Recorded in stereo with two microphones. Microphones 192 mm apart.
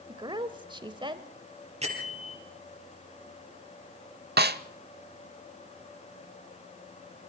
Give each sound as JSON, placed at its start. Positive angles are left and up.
{"t": 0.1, "sound": "a woman speaking", "side_deg": -25, "distance_m": 1.1}
{"t": 1.8, "sound": "a bell", "side_deg": -35, "distance_m": 5.5}
{"t": 4.4, "sound": "a snare drum", "side_deg": -60, "distance_m": 0.7}